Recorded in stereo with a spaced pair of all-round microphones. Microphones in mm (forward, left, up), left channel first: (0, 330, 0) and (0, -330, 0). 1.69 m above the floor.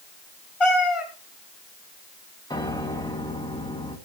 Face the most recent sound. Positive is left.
turn(degrees=5)  # may be behind; listen again after turning